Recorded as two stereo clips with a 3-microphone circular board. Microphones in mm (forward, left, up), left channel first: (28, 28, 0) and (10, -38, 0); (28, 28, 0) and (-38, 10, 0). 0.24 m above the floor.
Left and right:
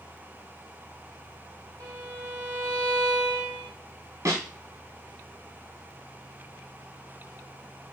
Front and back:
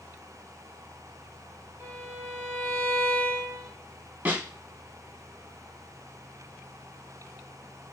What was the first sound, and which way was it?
A violin, 105° right.